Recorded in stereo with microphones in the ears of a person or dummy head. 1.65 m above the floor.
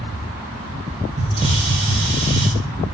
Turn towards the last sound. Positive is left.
turn(degrees=-35)  # may be behind; listen again after turning